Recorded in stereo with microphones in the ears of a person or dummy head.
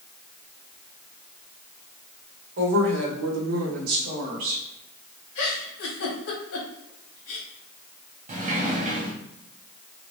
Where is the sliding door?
35° right (ahead or behind), 1.0 m.